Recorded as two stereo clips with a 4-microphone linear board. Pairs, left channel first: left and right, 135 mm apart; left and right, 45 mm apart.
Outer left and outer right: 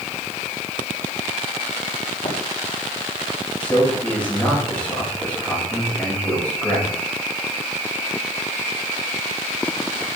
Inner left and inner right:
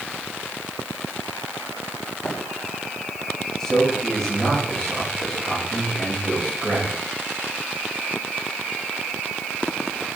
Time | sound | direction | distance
2.2 | running footsteps | 45° left (ahead or behind) | 5.5 m
3.6 | a man speaking | 10° left (ahead or behind) | 6.5 m